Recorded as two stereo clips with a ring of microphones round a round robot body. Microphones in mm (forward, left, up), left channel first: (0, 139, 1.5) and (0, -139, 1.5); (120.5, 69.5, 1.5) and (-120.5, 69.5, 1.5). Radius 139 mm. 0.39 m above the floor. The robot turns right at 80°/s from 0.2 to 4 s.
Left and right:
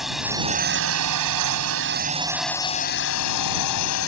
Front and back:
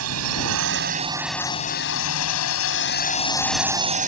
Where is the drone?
Straight behind; by 4.1 s 125° left.